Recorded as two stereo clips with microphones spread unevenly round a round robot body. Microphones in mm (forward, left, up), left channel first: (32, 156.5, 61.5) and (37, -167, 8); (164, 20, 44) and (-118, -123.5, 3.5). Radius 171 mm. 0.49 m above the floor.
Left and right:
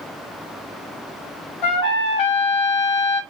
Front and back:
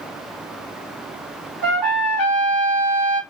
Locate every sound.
1.6 s a trumpet: 120° left, 0.9 m